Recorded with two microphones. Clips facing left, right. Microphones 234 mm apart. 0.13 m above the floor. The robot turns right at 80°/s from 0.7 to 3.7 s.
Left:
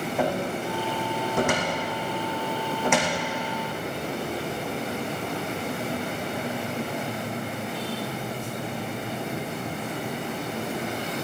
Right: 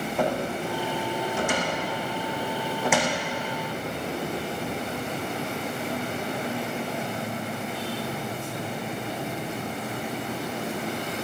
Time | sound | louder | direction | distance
0.2 | a cupboard door | even | 5° left (ahead or behind) | 3 m